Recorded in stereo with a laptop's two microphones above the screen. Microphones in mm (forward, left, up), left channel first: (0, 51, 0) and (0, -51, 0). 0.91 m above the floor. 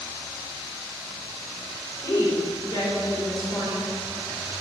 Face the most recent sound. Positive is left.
turn(degrees=40)  # may be behind; listen again after turning